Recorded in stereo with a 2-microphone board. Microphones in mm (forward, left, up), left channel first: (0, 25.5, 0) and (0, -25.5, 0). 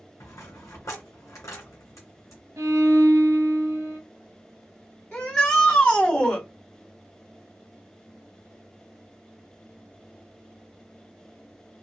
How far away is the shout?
About 1.8 m.